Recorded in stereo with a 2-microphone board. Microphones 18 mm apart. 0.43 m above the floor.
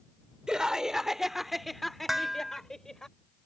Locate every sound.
0.5 s laughter: 40° right (ahead or behind); by 3.1 s 30° left (ahead or behind)
2.1 s dishes clattering: 20° right (ahead or behind)